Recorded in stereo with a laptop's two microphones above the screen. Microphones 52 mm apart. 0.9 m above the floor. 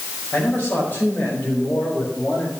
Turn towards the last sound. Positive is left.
turn(degrees=50)  # may be behind; listen again after turning